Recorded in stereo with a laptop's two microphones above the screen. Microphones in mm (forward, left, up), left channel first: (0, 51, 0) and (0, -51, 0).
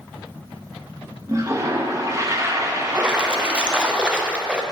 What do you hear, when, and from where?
1.3 s a toilet flushing: 30° right (ahead or behind), 0.9 m
2.9 s a splash: 10° right (ahead or behind), 0.6 m